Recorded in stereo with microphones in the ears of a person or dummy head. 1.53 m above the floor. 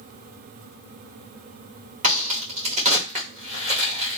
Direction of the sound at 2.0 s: 35° right (ahead or behind).